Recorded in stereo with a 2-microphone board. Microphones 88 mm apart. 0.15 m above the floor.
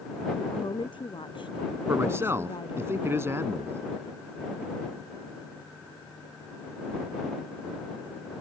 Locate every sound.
0.5 s a woman speaking: 70° left (ahead or behind)
1.9 s a man speaking: 30° right (ahead or behind)